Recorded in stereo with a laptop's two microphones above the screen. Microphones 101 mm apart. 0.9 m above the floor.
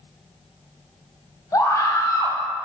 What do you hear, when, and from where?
1.5 s a scream: 30° left (ahead or behind), 1.1 m